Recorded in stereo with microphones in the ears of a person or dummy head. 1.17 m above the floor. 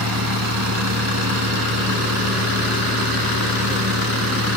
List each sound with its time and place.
0.0 s a fan: 80° right